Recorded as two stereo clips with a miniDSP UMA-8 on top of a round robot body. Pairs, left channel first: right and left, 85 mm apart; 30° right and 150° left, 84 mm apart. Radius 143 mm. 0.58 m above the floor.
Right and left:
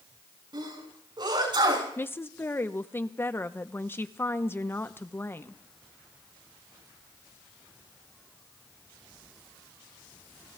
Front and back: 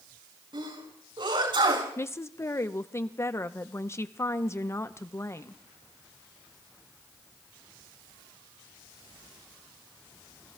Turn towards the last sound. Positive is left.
turn(degrees=-50)